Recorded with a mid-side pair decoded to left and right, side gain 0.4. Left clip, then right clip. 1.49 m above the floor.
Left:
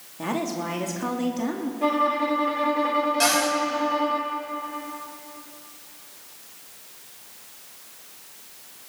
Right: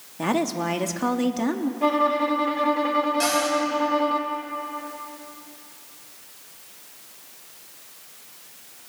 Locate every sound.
0.2 s a woman speaking: 45° right, 2.5 m
1.8 s a violin: 15° right, 3 m
3.2 s a cupboard door: 30° left, 6.5 m